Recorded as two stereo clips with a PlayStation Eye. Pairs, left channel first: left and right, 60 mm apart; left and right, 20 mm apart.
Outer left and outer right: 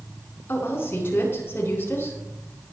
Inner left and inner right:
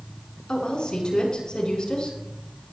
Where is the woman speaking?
45° left (ahead or behind), 7.5 m.